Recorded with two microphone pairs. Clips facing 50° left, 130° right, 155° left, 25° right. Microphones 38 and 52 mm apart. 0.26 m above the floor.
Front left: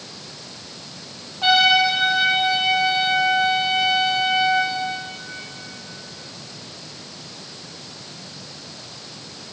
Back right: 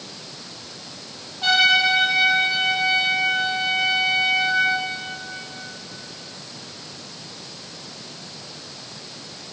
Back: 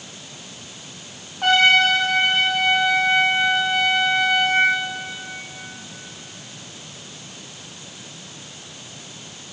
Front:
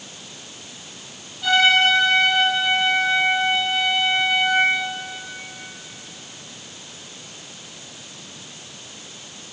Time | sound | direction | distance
1.4 | a trumpet | 115° left | 5.5 m